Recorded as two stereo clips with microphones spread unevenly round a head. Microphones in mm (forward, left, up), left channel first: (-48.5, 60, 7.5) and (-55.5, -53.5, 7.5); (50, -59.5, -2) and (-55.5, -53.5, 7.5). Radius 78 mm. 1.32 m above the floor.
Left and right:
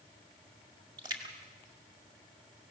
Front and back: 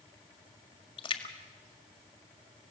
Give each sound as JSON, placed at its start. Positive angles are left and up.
{"t": 1.0, "sound": "a splash", "azimuth_deg": -35, "distance_m": 1.8}